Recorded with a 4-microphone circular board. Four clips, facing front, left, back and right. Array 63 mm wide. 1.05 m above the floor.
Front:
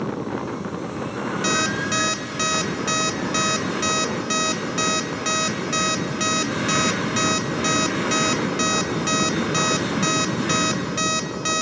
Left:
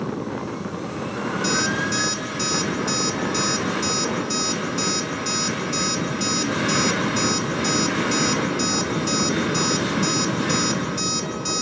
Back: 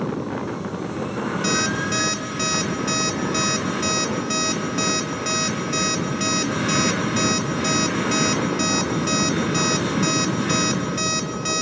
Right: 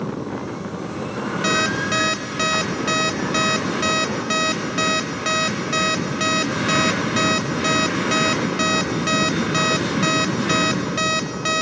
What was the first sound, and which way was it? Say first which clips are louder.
An alarm clock: right 3 dB, front 1 dB; 75° right.